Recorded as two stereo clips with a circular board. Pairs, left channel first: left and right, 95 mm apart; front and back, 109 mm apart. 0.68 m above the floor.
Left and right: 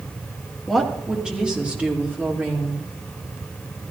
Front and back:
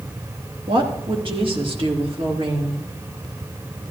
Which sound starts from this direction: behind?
A woman speaking, at 0.7 s.